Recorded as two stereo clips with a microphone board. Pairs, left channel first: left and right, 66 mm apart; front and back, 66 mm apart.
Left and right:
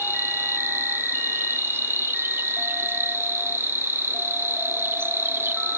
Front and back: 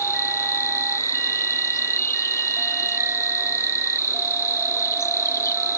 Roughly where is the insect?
Ahead right.